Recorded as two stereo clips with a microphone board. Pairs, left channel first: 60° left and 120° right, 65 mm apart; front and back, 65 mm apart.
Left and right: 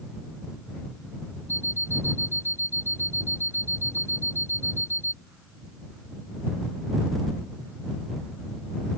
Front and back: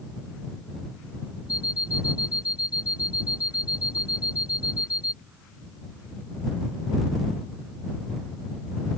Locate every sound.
1.5 s an alarm clock: 15° left